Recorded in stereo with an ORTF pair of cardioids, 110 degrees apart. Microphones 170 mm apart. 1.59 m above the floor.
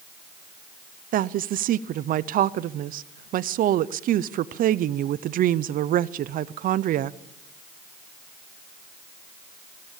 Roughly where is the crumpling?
No crumpling in this recording.